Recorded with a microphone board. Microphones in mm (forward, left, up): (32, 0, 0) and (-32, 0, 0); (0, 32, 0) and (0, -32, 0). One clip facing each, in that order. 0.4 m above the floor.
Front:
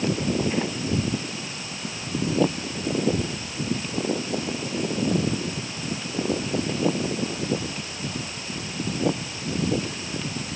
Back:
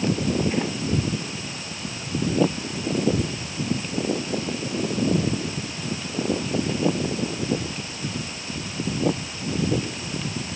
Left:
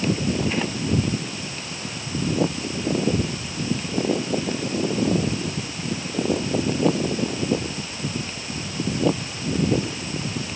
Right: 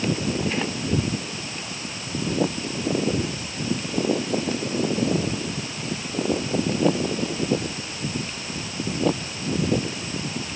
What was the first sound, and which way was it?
Only background noise.